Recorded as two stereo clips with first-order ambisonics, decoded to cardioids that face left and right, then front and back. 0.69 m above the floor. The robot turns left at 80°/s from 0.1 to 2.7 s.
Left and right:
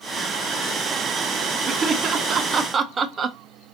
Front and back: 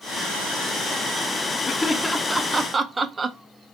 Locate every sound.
1.7 s laughter: 45° right, 0.5 m; by 3.4 s 125° right, 0.5 m